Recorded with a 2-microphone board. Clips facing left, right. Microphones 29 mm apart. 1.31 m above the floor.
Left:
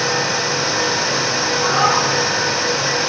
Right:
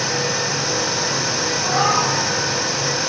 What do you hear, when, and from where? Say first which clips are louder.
1.6 s a cat meowing: left 2 dB; 55° left (ahead or behind), 5.5 m